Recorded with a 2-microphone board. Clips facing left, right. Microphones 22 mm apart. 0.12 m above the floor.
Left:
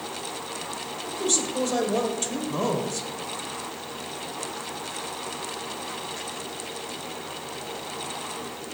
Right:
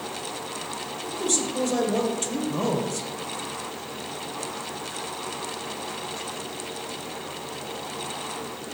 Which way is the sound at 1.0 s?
5° left (ahead or behind).